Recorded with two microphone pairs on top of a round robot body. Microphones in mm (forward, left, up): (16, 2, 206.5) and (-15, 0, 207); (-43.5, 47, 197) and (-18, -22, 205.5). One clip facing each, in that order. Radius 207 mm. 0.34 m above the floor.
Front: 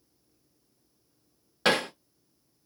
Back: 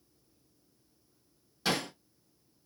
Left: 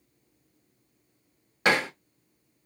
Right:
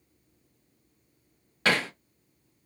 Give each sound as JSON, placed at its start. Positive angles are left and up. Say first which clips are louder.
{"t": 1.6, "sound": "hammering", "louder": "front 7 dB, left 2 dB", "azimuth_deg": 40, "distance_m": 0.6}